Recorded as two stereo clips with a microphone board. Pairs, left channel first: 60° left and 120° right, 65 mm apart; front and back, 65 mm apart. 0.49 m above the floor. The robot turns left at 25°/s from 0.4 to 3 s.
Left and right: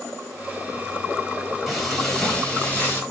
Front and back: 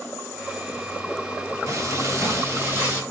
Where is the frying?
150° left, 3.5 m; by 3.0 s 120° left, 3.5 m.